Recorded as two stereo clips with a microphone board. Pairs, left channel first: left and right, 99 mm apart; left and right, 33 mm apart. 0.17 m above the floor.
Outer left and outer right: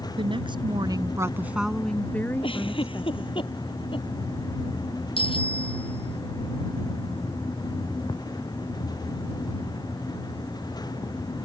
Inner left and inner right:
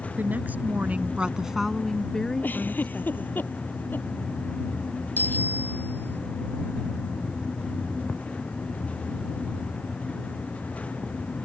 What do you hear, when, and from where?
0.2 s a woman speaking: 60° right (ahead or behind); by 3.4 s 40° left (ahead or behind)
2.4 s a giggle: 65° left (ahead or behind)
5.2 s a bicycle bell: 70° left (ahead or behind)